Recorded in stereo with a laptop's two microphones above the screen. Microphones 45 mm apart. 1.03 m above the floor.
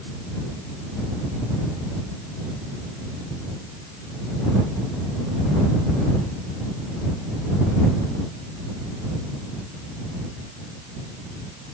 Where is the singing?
No singing in this recording.